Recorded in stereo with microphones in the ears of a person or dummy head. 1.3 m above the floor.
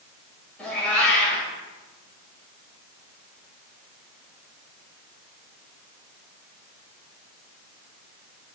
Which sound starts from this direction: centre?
A cat meowing, at 0.6 s.